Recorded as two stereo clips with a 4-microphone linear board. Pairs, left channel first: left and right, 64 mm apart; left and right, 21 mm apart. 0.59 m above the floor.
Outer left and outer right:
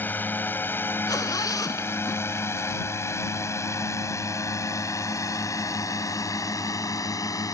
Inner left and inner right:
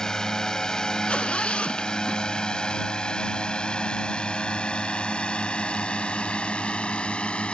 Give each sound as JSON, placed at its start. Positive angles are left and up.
{"t": 0.0, "sound": "a drone", "side_deg": 30}
{"t": 1.1, "sound": "a zipper", "side_deg": 65}